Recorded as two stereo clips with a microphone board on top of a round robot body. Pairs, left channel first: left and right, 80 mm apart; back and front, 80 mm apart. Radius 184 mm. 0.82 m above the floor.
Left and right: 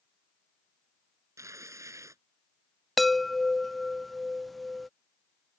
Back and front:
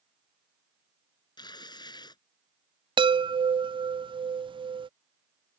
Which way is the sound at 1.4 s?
145° right.